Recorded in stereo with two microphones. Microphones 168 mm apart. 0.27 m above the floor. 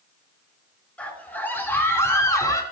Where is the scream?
10° left (ahead or behind), 3.5 m; by 2.6 s 20° left (ahead or behind), 3.5 m.